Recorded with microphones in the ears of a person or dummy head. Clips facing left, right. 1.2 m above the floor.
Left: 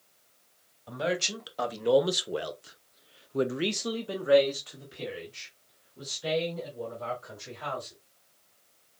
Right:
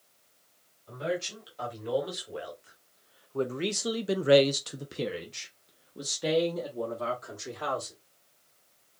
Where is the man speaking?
70° left (ahead or behind), 1.5 m; by 7.9 s 80° right, 2 m.